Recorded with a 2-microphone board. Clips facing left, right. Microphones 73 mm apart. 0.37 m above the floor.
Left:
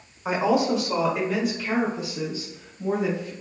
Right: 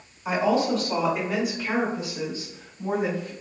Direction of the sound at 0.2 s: 30° left (ahead or behind).